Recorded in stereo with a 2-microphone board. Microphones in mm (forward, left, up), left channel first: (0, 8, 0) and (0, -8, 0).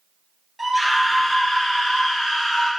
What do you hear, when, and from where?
0.6 s a scream: centre (ahead or behind), 2 m; by 2.7 s 45° left (ahead or behind), 4 m